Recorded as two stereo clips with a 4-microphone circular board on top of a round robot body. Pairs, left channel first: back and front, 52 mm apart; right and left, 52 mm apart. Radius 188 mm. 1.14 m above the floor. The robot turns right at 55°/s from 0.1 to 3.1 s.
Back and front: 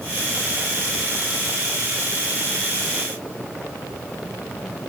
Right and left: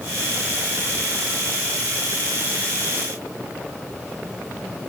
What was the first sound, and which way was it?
Only background noise.